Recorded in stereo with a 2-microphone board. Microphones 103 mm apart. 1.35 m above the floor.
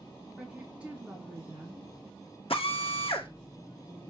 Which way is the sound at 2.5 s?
65° left (ahead or behind).